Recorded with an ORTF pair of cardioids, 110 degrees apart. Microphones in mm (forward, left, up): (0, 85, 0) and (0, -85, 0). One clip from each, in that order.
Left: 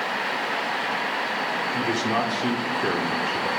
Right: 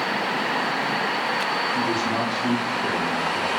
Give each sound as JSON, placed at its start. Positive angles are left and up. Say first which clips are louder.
{"t": 1.7, "sound": "a man speaking", "louder": "right 1 dB", "azimuth_deg": 30, "distance_m": 1.1}